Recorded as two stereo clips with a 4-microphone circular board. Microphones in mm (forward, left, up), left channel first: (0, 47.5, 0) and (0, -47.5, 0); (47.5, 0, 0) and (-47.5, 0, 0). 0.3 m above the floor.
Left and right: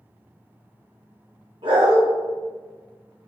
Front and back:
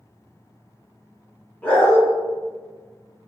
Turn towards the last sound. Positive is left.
turn(degrees=-75)